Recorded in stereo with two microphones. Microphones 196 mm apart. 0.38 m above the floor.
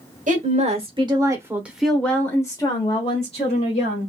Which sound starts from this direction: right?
A woman speaking, at 0.3 s.